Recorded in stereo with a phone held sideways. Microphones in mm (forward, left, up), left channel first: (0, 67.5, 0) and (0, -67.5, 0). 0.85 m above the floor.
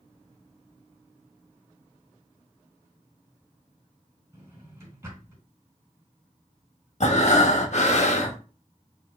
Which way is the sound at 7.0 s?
55° left (ahead or behind).